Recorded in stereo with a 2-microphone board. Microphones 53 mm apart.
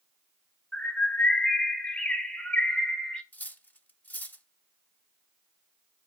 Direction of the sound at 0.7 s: 20° left (ahead or behind).